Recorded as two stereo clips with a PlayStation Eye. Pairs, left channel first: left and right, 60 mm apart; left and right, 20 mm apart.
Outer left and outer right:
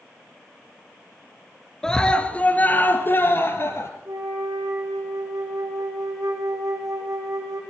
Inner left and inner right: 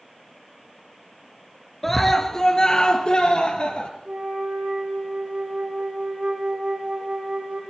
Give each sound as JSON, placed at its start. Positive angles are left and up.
{"t": 1.8, "sound": "a scream", "side_deg": 10, "distance_m": 3.0}
{"t": 4.0, "sound": "a flute", "side_deg": -80, "distance_m": 7.5}